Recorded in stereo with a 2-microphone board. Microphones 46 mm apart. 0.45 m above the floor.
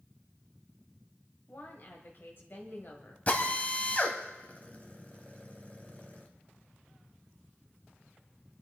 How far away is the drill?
About 2.0 m.